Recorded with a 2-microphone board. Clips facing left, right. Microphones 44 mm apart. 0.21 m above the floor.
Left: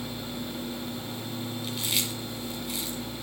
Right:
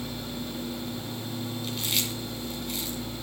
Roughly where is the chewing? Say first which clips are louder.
Even; centre.